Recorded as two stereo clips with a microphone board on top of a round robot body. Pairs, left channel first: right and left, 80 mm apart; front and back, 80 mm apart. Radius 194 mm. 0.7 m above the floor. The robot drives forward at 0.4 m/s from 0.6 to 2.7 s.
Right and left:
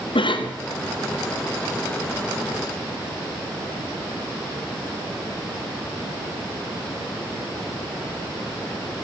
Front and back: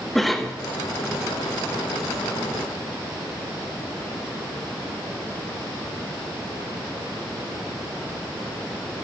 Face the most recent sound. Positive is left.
turn(degrees=-110)